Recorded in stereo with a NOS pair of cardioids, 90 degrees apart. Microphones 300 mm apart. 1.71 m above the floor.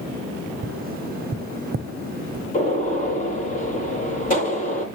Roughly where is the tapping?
Ahead right.